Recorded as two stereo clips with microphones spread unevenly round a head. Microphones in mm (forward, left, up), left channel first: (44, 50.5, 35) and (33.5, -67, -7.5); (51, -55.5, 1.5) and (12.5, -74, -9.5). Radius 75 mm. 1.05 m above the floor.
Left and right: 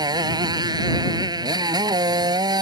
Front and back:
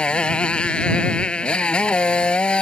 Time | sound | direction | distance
0.0 | a motorcycle | 40° right | ?